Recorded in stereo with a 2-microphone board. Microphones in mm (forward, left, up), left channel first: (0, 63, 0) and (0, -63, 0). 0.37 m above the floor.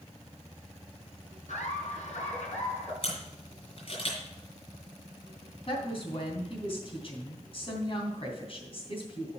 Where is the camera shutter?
55° left (ahead or behind), 5 m.